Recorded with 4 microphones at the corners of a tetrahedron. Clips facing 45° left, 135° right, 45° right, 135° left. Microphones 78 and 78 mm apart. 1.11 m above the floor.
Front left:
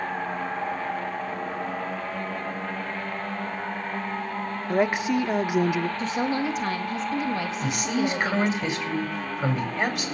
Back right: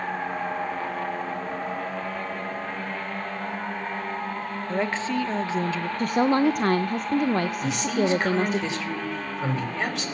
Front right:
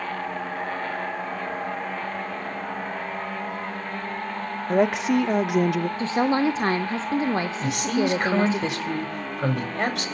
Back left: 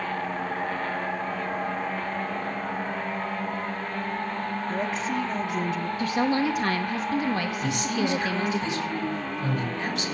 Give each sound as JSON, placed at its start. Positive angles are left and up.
{"t": 4.7, "sound": "a woman speaking", "azimuth_deg": -30, "distance_m": 0.7}
{"t": 6.0, "sound": "a woman speaking", "azimuth_deg": -105, "distance_m": 0.9}
{"t": 7.6, "sound": "a man speaking", "azimuth_deg": -40, "distance_m": 5.0}